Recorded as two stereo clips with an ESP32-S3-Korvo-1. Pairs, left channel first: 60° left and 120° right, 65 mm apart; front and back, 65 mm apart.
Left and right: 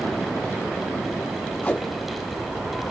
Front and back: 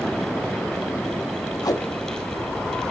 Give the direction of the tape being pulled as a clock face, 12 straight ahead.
12 o'clock.